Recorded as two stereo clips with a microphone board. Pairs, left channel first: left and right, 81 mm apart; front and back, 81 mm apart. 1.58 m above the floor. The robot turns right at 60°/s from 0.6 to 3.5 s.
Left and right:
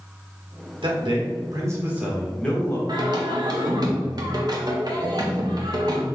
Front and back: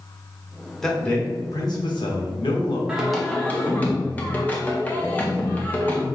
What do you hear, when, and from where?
0.8 s a man speaking: 85° right, 1.0 m; by 2.8 s 30° left, 1.0 m
2.9 s singing: 105° right, 0.6 m; by 6.0 s 65° right, 0.6 m